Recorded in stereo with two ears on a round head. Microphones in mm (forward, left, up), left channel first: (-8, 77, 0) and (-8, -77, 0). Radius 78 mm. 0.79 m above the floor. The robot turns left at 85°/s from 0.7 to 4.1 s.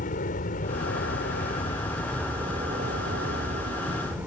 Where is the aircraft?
120° left; by 4.3 s 170° right.